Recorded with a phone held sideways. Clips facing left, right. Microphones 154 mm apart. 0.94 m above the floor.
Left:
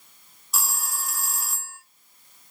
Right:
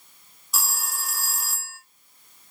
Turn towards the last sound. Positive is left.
turn(degrees=0)  # may be behind; listen again after turning